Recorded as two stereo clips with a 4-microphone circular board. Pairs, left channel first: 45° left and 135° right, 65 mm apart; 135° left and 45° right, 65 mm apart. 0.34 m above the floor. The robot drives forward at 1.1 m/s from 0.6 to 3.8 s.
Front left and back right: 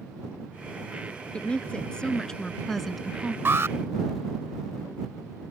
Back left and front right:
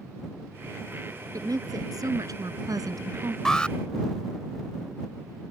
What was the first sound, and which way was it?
A woman speaking, 25° right.